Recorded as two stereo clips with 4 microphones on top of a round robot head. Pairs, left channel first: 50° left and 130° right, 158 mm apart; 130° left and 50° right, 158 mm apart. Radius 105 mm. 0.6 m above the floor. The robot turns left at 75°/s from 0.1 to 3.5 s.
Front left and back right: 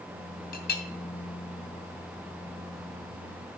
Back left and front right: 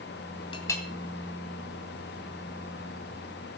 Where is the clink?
75° left, 1.7 m; by 0.8 s 50° left, 1.7 m.